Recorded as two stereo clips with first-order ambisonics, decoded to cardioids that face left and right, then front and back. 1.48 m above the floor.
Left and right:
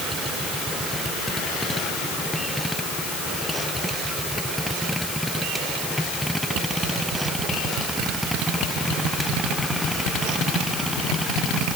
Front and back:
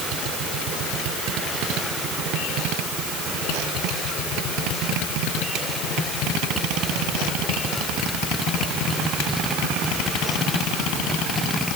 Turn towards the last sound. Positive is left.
No sound to turn to.